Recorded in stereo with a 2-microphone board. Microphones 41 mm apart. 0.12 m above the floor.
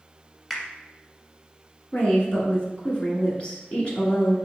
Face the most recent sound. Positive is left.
turn(degrees=35)  # may be behind; listen again after turning